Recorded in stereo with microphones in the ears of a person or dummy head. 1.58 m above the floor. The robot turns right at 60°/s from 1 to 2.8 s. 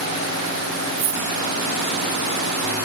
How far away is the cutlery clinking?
About 9 m.